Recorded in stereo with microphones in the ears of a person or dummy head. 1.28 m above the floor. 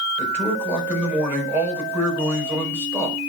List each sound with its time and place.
0.2 s a man speaking: 5° right (ahead or behind), 4.5 m